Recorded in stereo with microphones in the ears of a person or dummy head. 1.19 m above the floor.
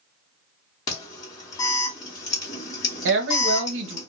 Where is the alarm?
15° left (ahead or behind), 1.2 m.